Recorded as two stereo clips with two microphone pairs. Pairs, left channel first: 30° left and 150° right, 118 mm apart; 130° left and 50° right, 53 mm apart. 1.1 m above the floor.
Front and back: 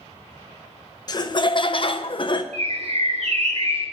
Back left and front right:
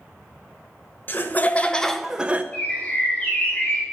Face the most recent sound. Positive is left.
turn(degrees=-170)